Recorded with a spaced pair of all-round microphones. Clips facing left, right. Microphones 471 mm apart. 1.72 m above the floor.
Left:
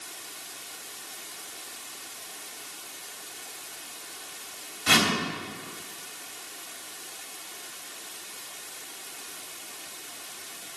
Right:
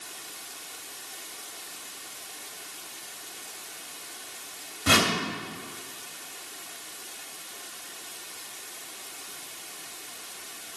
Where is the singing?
No singing in this recording.